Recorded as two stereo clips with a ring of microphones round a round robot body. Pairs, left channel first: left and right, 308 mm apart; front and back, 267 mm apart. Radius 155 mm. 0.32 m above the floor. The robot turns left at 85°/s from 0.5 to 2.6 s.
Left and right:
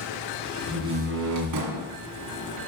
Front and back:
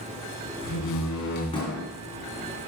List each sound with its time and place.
0.6 s a door slam: 5° left, 2.5 m; by 1.9 s 105° right, 2.5 m